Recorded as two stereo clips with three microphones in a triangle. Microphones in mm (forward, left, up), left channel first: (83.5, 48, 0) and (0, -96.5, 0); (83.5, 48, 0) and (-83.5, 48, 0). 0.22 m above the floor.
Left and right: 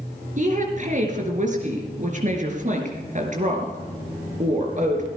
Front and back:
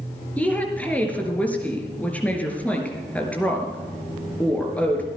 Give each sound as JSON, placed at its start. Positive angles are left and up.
{"t": 0.4, "sound": "a woman speaking", "azimuth_deg": -80, "distance_m": 4.0}